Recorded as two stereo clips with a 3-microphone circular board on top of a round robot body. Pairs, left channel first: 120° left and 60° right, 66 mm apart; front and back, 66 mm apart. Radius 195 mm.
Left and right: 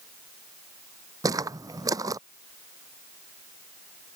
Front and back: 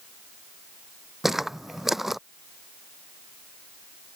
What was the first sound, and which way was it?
Footsteps, 95° right.